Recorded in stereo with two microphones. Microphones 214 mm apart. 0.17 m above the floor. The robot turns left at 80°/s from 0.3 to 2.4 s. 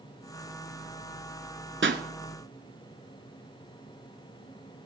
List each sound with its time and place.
1.8 s a pop: 65° right (ahead or behind), 0.9 m; by 2.0 s 55° right (ahead or behind), 0.9 m